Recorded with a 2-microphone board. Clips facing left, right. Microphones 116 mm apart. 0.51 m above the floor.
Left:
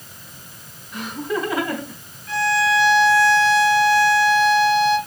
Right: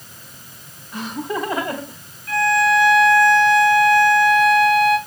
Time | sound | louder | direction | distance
0.9 | laughter | even | 30° right (ahead or behind) | 3.5 m
2.3 | a violin | right 3 dB | centre (ahead or behind) | 5 m